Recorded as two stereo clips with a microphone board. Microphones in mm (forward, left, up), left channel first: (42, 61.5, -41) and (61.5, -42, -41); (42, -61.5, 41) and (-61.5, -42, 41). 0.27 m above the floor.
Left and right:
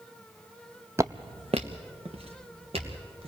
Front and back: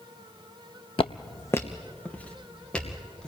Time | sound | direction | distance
1.0 | footsteps | 15° right | 0.5 m